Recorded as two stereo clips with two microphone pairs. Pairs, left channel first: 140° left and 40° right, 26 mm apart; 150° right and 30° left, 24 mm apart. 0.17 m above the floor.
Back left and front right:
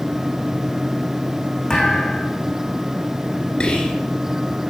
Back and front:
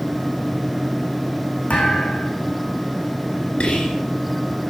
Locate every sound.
1.7 s a thud: 160° right, 4.5 m
3.6 s whispering: 175° right, 3 m